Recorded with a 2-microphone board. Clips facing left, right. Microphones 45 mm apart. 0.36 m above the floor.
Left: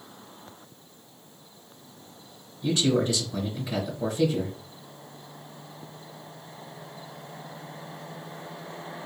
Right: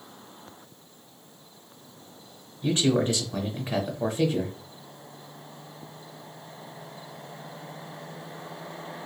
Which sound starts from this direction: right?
A man speaking, at 2.6 s.